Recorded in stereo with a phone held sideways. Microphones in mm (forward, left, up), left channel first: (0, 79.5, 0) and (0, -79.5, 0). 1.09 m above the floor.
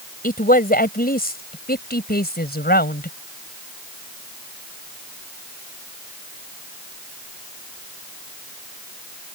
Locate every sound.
0.2 s a woman speaking: 65° left (ahead or behind); by 3.2 s 90° left